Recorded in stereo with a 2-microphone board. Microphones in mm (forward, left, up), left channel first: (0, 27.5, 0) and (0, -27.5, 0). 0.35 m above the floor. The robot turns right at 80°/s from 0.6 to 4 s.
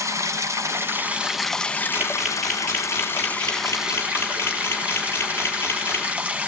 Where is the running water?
65° right, 1.4 m; by 6.5 s 155° right, 1.4 m.